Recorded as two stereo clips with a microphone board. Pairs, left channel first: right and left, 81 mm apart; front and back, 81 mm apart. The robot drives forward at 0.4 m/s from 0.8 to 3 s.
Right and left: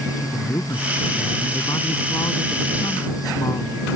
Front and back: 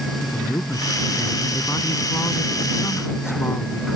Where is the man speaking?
50° right; by 3.9 s 55° right.